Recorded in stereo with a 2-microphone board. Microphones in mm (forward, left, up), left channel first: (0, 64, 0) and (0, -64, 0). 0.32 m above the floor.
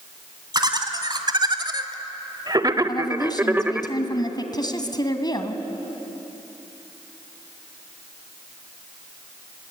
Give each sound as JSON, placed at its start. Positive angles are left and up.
{"t": 0.5, "sound": "laughter", "side_deg": -35, "distance_m": 2.0}
{"t": 2.9, "sound": "a woman speaking", "side_deg": 35, "distance_m": 2.0}